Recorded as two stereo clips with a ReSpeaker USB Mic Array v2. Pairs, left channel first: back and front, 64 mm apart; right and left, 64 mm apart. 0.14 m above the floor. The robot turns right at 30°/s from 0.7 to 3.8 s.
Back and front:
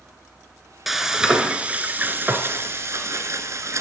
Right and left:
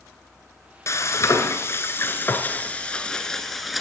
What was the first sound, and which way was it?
Frying, 85° right.